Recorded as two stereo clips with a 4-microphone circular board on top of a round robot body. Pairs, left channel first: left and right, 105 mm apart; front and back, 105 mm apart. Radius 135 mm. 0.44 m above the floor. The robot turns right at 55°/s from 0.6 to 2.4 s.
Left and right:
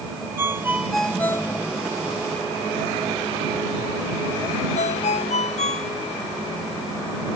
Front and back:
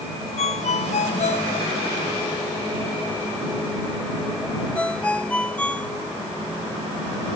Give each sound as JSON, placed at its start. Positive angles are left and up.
{"t": 0.4, "sound": "a ringtone", "azimuth_deg": -20}